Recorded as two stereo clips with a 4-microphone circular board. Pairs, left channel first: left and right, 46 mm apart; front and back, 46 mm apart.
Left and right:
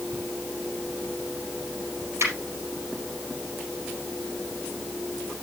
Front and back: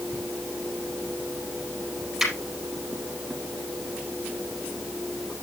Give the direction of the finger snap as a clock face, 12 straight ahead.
3 o'clock.